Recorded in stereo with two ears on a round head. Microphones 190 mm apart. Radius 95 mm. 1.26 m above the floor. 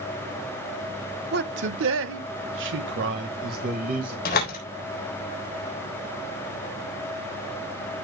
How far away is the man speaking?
About 1.1 m.